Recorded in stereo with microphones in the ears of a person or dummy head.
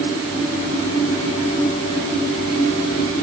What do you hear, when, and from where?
Only background noise.